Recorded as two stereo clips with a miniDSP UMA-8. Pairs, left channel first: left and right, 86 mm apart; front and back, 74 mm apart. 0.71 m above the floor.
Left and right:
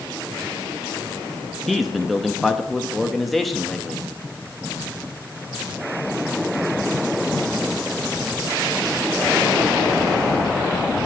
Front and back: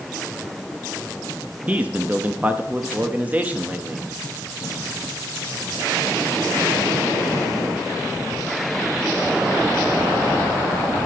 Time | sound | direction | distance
1.7 | a man speaking | 175° left | 0.7 m